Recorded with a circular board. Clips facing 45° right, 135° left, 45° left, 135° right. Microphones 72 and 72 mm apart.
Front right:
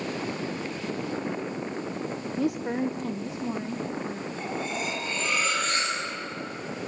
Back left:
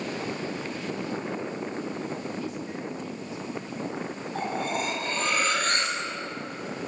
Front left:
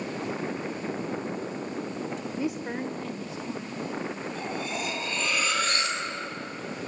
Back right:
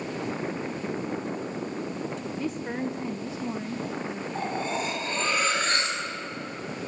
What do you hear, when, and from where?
2.4 s a woman speaking: 25° right, 0.8 m; by 4.2 s 95° right, 1.9 m
4.3 s cutlery clinking: 170° left, 6 m